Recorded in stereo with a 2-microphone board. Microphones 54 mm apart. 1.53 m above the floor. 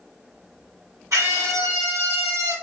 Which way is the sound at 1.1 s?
80° right.